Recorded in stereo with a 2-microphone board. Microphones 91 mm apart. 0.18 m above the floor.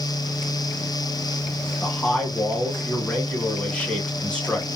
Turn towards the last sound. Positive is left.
turn(degrees=15)  # may be behind; listen again after turning